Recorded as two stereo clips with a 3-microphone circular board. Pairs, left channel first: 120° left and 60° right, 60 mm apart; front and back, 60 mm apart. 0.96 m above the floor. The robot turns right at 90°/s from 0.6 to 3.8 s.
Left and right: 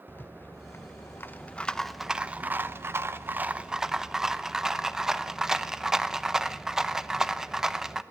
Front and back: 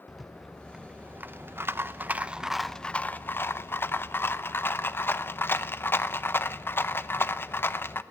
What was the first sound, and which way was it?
A rattle, 90° left.